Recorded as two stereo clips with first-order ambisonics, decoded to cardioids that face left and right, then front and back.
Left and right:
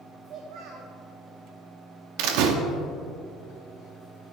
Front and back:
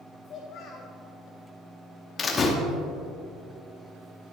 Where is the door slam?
70° right, 0.9 m.